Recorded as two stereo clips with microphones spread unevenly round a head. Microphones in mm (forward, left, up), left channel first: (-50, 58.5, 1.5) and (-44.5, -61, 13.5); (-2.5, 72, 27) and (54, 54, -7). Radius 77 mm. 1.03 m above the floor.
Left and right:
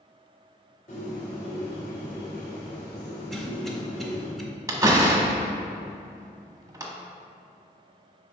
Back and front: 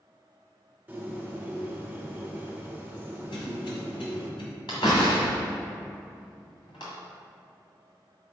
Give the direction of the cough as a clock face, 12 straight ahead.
6 o'clock.